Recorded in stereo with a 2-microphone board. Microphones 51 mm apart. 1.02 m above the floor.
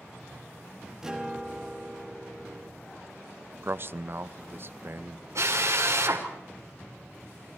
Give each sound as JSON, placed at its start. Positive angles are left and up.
{"t": 1.0, "sound": "a guitar", "side_deg": -10, "distance_m": 2.5}
{"t": 3.6, "sound": "a man speaking", "side_deg": -50, "distance_m": 0.6}
{"t": 5.3, "sound": "a drill", "side_deg": -65, "distance_m": 3.0}